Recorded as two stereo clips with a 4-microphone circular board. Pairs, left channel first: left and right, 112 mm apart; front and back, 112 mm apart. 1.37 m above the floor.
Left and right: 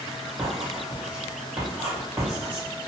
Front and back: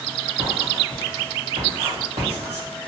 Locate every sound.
0.4 s writing: 170° right, 1.6 m